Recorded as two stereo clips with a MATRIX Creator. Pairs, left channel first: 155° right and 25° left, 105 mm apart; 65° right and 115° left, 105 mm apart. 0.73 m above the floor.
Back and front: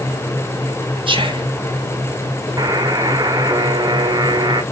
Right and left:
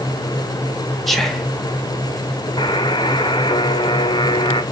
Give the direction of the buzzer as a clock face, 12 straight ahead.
1 o'clock.